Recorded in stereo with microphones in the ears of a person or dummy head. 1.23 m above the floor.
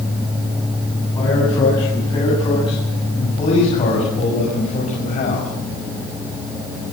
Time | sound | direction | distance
1.1 | a man speaking | 20° left (ahead or behind) | 9 m